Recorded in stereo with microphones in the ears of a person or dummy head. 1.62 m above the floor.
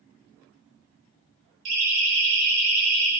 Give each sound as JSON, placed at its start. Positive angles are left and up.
{"t": 1.6, "sound": "a siren", "side_deg": -75, "distance_m": 7.5}